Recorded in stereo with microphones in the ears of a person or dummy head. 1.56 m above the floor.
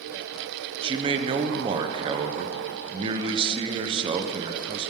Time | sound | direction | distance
0.8 | a man speaking | 35° right (ahead or behind) | 1.0 m